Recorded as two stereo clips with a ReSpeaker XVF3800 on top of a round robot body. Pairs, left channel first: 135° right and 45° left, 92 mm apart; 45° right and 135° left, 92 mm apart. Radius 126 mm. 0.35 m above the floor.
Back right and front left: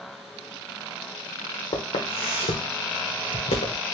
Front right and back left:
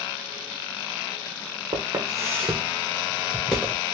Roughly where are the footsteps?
Behind.